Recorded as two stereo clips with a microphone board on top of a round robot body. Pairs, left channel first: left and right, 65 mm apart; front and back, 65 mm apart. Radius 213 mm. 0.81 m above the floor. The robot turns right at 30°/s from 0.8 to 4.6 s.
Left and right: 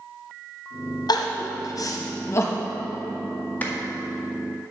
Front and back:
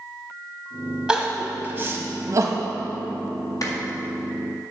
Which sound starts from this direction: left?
Crying, at 1.1 s.